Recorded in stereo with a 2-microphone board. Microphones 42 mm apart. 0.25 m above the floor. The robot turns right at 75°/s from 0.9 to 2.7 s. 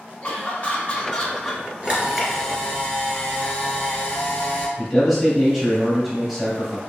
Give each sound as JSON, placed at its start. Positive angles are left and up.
{"t": 0.2, "sound": "laughter", "azimuth_deg": 140, "distance_m": 1.6}
{"t": 1.8, "sound": "a camera shutter", "azimuth_deg": -40, "distance_m": 1.8}
{"t": 4.8, "sound": "a man speaking", "side_deg": 0, "distance_m": 1.4}